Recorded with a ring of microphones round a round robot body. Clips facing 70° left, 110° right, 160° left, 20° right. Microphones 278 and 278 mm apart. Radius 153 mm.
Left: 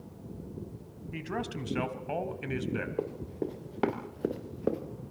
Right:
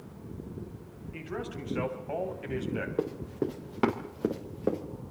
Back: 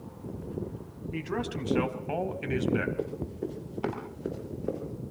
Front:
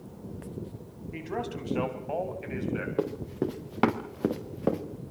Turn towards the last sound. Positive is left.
turn(degrees=-20)